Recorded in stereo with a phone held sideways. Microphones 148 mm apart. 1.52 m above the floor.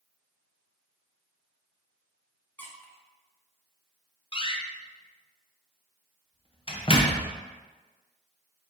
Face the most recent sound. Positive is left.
turn(degrees=40)  # may be behind; listen again after turning